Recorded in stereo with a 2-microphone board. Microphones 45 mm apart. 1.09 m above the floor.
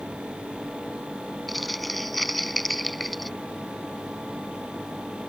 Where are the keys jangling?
I don't hear keys jangling.